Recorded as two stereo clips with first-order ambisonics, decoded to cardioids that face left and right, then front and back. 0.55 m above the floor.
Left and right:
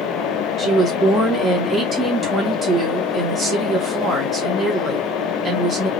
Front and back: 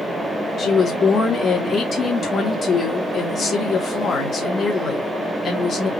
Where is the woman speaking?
35° right, 1.3 m.